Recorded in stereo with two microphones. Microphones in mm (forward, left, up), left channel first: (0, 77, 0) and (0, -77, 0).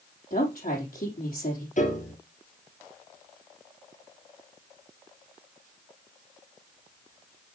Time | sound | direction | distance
0.3 | a woman speaking | 65° left (ahead or behind) | 4 m
1.8 | a piano | 55° left (ahead or behind) | 2 m